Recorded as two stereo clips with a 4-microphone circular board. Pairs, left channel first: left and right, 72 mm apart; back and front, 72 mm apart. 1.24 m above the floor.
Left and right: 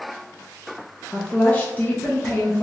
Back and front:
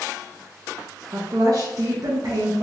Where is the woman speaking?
25° left, 0.6 m.